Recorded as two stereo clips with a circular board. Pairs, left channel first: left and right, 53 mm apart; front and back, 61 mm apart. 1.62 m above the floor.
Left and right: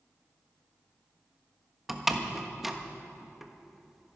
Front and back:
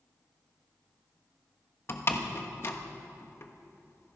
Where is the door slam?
5° right, 1.1 m.